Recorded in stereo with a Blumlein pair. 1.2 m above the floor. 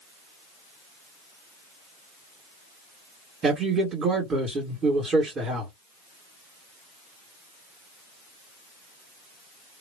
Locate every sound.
3.4 s a man speaking: 20° right, 1.5 m